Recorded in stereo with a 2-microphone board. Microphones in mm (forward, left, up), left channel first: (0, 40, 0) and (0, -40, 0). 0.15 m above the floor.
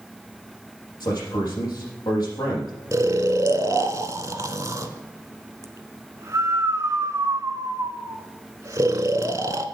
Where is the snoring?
40° right (ahead or behind), 0.8 m.